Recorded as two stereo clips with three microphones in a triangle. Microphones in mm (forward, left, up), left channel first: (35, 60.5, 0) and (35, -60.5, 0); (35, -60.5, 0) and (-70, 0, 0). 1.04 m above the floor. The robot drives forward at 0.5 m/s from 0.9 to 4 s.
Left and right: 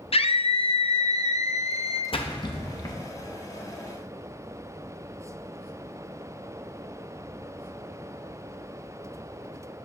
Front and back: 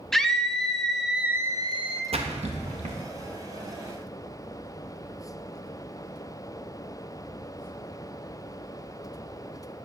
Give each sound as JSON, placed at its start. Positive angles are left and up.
{"t": 0.1, "sound": "a scream", "azimuth_deg": 55, "distance_m": 0.6}
{"t": 2.1, "sound": "a splash", "azimuth_deg": 125, "distance_m": 0.6}